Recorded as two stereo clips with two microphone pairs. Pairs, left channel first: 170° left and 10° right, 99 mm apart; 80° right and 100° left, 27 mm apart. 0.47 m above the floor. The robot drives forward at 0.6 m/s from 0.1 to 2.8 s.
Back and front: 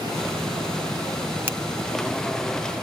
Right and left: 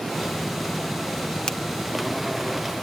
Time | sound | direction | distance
1.5 | a finger snap | 60° right | 0.5 m